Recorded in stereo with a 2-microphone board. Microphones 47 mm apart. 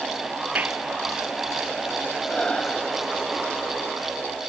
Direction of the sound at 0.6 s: 35° right (ahead or behind).